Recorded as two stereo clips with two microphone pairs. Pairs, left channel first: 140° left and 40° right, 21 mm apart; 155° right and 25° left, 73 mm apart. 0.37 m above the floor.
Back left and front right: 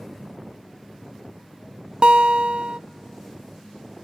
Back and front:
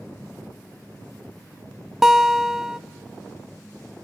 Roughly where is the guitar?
Ahead right.